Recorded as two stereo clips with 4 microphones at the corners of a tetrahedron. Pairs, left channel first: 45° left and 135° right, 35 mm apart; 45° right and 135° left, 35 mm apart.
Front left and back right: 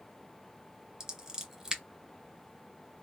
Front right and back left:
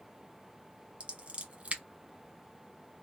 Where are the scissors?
160° left, 1.4 m.